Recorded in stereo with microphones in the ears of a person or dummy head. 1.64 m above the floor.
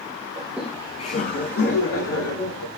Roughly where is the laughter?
Right.